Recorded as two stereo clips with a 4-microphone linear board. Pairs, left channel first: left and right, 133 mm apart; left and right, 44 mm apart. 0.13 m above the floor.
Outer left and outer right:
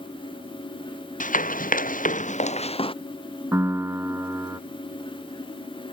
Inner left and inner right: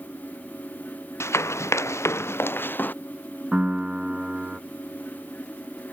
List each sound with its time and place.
1.2 s running footsteps: 75° left (ahead or behind); by 2.9 s 40° left (ahead or behind)
3.5 s a piano: 20° right (ahead or behind)